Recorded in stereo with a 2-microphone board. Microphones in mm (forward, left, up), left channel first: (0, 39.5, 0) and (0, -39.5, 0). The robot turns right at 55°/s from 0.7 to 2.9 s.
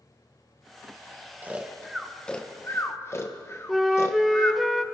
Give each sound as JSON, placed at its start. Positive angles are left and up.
{"t": 1.4, "sound": "snoring", "side_deg": -25, "distance_m": 1.0}
{"t": 3.7, "sound": "a flute", "side_deg": 0, "distance_m": 0.6}